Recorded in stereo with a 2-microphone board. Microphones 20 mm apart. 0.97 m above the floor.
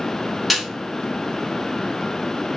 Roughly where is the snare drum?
Centre.